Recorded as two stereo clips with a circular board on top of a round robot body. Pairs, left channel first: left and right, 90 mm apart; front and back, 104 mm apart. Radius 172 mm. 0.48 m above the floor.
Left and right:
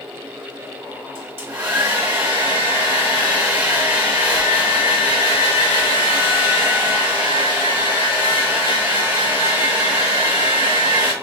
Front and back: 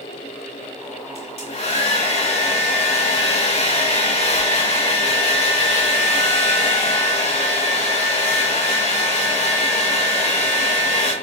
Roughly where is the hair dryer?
Ahead.